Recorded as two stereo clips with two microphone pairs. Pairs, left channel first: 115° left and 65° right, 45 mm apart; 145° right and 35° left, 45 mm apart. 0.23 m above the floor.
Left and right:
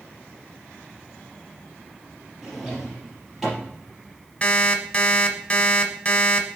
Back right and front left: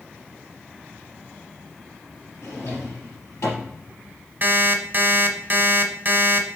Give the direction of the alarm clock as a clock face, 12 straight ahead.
10 o'clock.